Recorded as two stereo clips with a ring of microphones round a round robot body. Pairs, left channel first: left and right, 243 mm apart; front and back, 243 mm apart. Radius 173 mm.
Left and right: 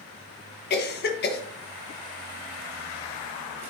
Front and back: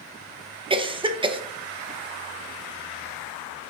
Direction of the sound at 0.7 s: 115° left.